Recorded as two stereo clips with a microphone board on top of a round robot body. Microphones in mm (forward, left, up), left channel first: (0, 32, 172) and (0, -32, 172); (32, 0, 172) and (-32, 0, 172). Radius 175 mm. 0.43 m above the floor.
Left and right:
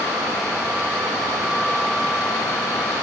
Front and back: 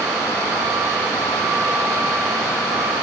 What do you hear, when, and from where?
Only background noise.